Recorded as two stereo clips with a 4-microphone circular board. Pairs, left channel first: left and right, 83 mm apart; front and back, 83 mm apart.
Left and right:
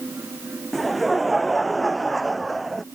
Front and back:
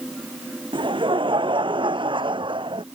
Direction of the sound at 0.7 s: Straight behind.